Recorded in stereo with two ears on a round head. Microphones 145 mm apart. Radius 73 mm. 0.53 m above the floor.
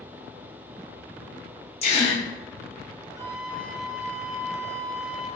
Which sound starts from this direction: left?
A gasp, at 1.8 s.